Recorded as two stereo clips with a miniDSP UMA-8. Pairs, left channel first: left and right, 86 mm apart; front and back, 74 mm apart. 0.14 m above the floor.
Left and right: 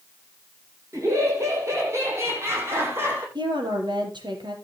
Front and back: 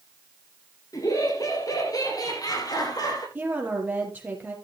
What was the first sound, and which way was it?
Laughter, 40° right.